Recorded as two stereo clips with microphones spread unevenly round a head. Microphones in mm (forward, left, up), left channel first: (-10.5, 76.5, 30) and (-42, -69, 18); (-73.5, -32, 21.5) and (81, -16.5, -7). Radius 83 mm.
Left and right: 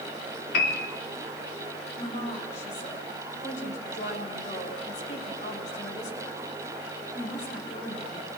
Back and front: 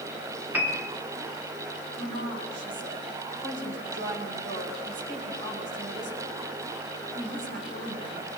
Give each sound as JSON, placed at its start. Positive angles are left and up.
{"t": 0.5, "sound": "a piano", "azimuth_deg": 90, "distance_m": 2.5}
{"t": 2.0, "sound": "a woman speaking", "azimuth_deg": 25, "distance_m": 8.0}